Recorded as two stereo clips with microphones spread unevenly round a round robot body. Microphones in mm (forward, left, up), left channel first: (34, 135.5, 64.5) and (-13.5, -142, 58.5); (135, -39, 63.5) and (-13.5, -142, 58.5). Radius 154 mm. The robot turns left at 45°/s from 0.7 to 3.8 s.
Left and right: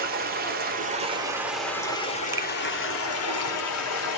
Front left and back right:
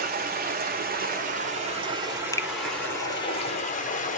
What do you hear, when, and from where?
0.0 s running water: 150° right, 1.3 m; by 4.2 s 70° left, 1.3 m
2.3 s a finger snap: 30° right, 0.6 m; by 2.5 s 35° right, 0.6 m